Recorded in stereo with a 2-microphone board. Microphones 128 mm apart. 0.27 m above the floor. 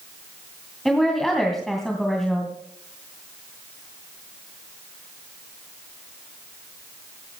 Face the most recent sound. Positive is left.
turn(degrees=0)  # may be behind; listen again after turning